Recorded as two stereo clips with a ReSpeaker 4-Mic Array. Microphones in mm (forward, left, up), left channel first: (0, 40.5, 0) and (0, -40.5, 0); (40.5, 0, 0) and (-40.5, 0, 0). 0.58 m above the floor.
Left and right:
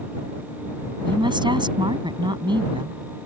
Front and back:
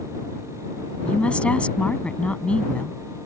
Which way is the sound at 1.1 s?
75° right.